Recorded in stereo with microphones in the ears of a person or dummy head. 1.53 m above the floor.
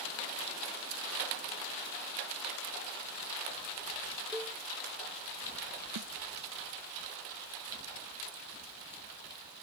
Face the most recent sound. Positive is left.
turn(degrees=-85)